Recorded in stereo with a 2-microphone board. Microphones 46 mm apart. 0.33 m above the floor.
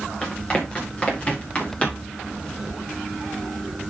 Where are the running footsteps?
20° left (ahead or behind), 7 m; by 2.1 s 25° left (ahead or behind), 7.5 m.